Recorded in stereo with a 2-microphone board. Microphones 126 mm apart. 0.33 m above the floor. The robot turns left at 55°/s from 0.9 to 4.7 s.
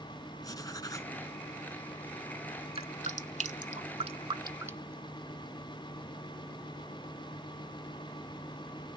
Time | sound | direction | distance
0.4 | writing | 30° left (ahead or behind) | 1.1 m
2.8 | dripping | 50° right (ahead or behind) | 0.7 m